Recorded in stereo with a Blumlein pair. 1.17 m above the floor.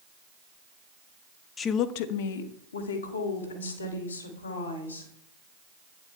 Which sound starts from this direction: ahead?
A woman speaking, at 1.6 s.